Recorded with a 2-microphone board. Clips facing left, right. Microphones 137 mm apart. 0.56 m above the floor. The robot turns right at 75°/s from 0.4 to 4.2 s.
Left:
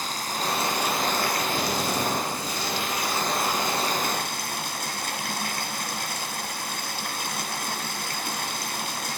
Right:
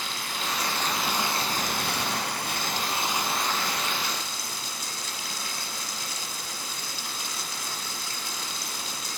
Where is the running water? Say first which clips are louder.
Left 4 dB; 135° left, 3 m; by 9.2 s 60° left, 3 m.